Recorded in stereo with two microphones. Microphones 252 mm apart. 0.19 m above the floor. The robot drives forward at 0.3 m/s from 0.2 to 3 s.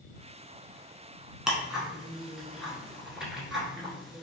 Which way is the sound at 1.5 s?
5° right (ahead or behind).